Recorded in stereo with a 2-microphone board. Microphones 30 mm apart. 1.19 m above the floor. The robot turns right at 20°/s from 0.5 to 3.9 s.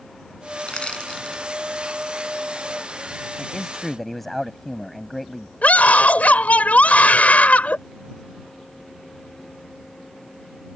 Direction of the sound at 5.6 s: 60° left (ahead or behind).